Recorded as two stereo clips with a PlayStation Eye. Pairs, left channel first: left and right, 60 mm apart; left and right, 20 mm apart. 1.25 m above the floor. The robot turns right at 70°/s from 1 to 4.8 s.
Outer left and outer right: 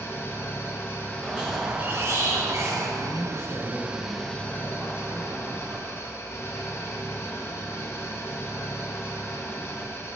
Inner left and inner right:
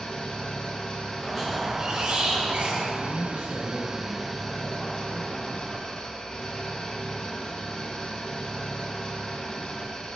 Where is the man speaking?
90° left, 2.5 m; by 6.0 s 140° right, 2.5 m.